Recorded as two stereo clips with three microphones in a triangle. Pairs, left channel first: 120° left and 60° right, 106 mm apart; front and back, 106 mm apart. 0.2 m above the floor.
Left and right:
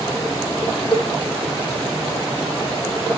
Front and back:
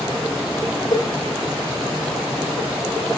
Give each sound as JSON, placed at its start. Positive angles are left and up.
{"t": 0.9, "sound": "a cowbell", "azimuth_deg": 50, "distance_m": 3.0}